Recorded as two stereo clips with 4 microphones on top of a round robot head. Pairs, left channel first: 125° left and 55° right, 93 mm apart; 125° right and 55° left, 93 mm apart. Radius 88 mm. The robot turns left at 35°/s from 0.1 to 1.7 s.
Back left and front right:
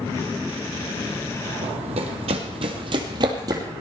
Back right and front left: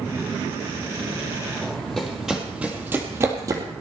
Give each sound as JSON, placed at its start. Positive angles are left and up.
{"t": 1.6, "sound": "running footsteps", "azimuth_deg": -40, "distance_m": 2.0}